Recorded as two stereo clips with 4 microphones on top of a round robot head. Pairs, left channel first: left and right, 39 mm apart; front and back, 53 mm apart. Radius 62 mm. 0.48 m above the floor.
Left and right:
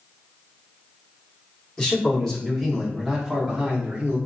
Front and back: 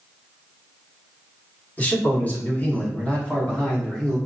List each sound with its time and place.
1.8 s a man speaking: 30° left, 1.7 m; by 4.2 s 65° right, 1.5 m